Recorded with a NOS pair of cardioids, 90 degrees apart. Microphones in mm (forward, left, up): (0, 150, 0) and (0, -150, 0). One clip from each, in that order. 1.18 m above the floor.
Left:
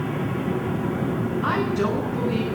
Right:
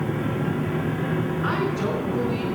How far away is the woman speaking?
About 9.5 m.